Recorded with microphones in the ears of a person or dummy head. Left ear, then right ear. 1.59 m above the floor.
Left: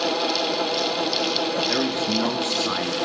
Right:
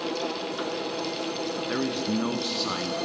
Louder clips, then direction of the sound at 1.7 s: Left 6 dB; 20° left (ahead or behind).